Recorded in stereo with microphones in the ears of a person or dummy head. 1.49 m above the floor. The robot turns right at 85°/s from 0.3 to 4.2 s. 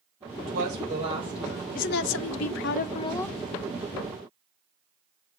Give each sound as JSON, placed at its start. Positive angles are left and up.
{"t": 0.4, "sound": "a woman speaking", "azimuth_deg": -85, "distance_m": 4.5}
{"t": 1.8, "sound": "a woman speaking", "azimuth_deg": 45, "distance_m": 0.6}